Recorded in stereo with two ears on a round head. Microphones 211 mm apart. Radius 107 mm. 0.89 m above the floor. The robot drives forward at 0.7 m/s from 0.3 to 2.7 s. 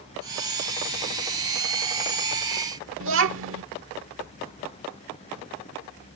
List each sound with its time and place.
3.0 s a child speaking: 60° right (ahead or behind)